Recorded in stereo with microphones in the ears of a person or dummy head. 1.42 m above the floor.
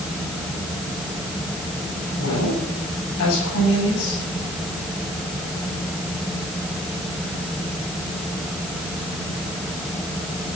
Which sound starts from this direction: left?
A woman speaking, at 2.2 s.